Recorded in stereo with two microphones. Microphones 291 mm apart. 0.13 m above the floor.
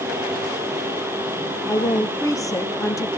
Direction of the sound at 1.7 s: 10° left (ahead or behind).